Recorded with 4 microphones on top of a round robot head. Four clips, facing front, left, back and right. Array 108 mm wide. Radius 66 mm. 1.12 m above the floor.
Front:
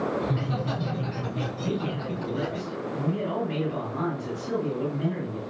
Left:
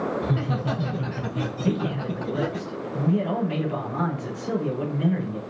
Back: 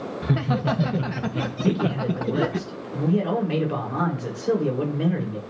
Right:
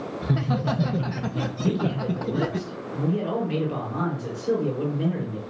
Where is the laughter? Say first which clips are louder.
Right 1 dB, back 5 dB; 155° right, 1.9 m.